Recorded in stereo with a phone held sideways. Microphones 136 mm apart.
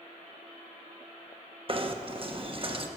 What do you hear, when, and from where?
1.7 s knocking: 40° right (ahead or behind), 0.8 m